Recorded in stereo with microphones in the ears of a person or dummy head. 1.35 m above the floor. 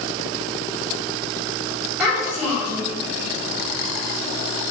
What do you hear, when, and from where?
2.0 s a child speaking: 5° right (ahead or behind), 1.1 m